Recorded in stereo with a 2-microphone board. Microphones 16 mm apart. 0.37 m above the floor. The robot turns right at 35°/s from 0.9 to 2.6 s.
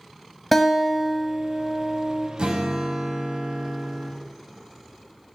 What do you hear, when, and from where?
0.5 s a guitar: 175° left, 0.6 m; by 2.3 s 135° right, 0.6 m
2.4 s a guitar: 80° right, 0.5 m; by 4.1 s 70° right (ahead or behind), 0.5 m